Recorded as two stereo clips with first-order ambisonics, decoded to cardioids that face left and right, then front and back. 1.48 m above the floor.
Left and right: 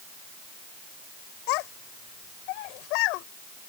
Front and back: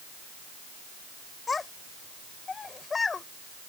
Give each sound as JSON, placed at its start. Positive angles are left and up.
{"t": 1.5, "sound": "a child speaking", "azimuth_deg": 75}